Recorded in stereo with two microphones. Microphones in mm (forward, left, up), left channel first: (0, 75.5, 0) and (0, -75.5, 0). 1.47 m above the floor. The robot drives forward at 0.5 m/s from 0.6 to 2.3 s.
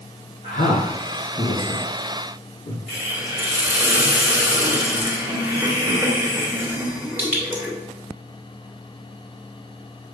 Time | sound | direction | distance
0.4 | a man speaking | 75° left (ahead or behind) | 1.6 m
2.9 | a hiss | 10° right (ahead or behind) | 2.5 m